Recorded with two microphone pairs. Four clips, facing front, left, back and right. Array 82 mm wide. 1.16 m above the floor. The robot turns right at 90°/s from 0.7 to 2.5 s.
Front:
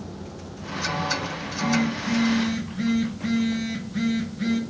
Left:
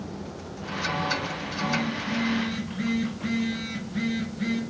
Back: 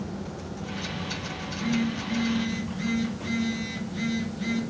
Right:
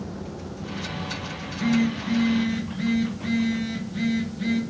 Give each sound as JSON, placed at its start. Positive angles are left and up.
{"t": 1.4, "sound": "a phone buzzing", "azimuth_deg": -80, "distance_m": 0.9}